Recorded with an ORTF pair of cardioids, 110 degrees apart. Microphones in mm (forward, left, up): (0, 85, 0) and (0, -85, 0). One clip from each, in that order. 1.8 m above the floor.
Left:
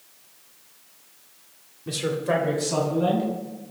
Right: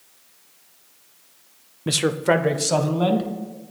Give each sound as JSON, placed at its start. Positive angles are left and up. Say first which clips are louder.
{"t": 1.9, "sound": "a man speaking", "louder": "right 5 dB", "azimuth_deg": -60, "distance_m": 0.5}